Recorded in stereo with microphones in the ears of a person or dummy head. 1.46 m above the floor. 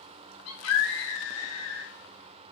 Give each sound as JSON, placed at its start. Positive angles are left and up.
{"t": 0.5, "sound": "a scream", "side_deg": 85, "distance_m": 2.5}